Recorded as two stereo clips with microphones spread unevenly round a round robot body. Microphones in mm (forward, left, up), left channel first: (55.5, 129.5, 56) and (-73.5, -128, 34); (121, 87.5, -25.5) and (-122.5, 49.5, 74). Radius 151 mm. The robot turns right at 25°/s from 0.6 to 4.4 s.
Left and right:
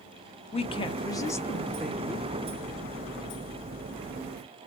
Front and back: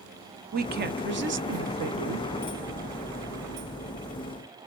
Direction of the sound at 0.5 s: 125° left.